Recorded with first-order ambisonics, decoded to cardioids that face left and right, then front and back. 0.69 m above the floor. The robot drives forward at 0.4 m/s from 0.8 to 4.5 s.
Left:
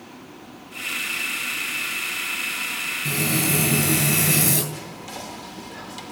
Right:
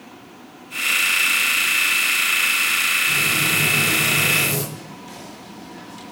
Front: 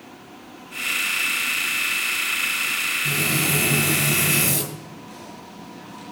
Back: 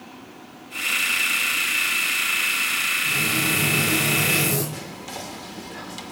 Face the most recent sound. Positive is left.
turn(degrees=155)